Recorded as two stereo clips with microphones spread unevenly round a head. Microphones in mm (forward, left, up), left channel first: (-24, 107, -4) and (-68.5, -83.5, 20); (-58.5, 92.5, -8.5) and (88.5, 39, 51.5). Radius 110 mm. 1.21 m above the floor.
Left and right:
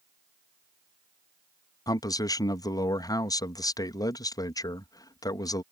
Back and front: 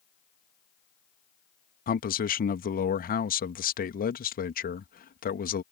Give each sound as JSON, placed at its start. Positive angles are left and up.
{"t": 1.9, "sound": "a man speaking", "azimuth_deg": 145}